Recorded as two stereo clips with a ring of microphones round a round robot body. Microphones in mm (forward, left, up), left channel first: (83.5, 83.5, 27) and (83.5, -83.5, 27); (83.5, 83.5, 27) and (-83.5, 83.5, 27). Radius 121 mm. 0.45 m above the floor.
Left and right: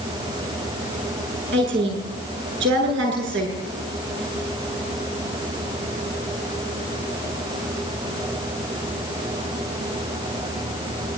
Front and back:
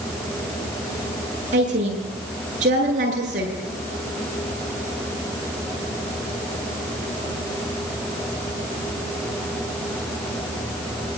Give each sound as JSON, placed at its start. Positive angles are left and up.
{"t": 1.5, "sound": "a woman speaking", "azimuth_deg": -120, "distance_m": 8.5}